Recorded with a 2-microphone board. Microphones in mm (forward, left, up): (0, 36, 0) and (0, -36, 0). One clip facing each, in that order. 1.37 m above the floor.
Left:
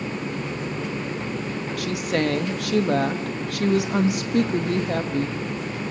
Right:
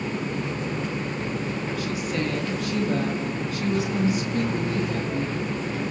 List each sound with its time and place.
1.8 s a woman speaking: 75° left (ahead or behind), 1.6 m